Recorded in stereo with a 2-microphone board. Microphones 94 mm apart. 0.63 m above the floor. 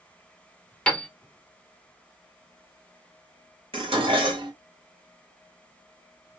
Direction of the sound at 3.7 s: 80° right.